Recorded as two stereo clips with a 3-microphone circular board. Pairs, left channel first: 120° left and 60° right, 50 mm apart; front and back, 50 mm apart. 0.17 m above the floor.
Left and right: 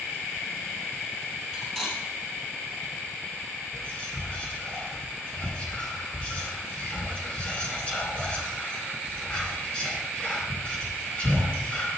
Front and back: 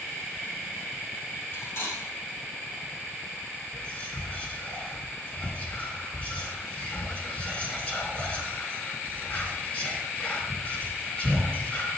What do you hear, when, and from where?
1.5 s cutlery clinking: 40° left, 3 m
3.7 s whispering: 60° left, 2.5 m